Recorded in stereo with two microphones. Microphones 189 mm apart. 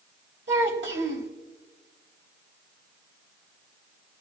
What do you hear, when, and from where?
0.5 s a child speaking: 75° right (ahead or behind), 2.5 m